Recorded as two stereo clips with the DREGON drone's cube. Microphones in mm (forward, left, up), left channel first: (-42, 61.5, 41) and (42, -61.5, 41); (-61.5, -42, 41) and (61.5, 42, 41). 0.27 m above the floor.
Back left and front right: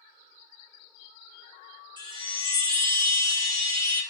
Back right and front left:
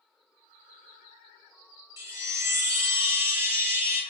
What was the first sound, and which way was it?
A chime, 25° right.